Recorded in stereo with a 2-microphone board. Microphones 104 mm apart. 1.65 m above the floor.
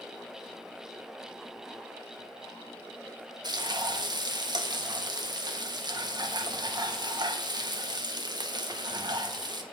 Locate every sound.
3.4 s frying: 45° right (ahead or behind), 1.5 m